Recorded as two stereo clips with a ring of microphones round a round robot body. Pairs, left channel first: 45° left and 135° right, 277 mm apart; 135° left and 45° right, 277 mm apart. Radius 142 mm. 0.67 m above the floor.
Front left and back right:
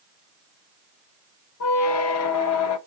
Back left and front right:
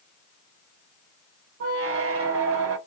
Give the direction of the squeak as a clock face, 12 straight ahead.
12 o'clock.